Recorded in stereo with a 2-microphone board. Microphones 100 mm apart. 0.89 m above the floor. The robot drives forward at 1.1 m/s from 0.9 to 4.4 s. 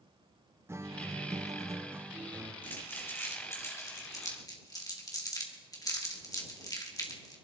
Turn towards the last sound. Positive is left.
turn(degrees=35)  # may be behind; listen again after turning